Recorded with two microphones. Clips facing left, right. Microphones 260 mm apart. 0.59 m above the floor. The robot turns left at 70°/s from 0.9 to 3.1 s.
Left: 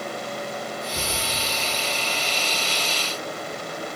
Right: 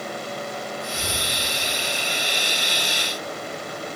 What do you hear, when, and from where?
0.9 s a cupboard door: 55° left (ahead or behind), 5.5 m; by 1.2 s 75° left (ahead or behind), 5.5 m